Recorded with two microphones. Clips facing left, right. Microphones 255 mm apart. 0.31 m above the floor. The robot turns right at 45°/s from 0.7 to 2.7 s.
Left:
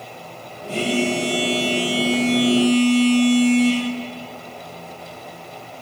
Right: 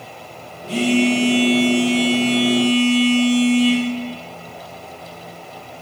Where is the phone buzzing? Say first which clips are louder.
Right 5 dB; 100° right, 2.5 m; by 3.8 s 10° right, 2.5 m.